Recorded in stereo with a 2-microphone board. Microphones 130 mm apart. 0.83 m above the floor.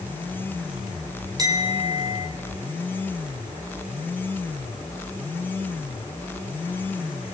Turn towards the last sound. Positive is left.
turn(degrees=-30)  # may be behind; listen again after turning